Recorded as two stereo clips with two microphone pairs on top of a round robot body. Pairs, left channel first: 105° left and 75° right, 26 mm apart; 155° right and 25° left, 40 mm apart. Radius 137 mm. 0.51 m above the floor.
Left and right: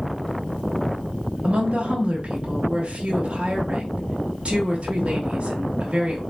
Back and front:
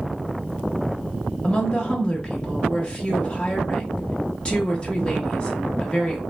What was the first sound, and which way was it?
A woman speaking, 105° right.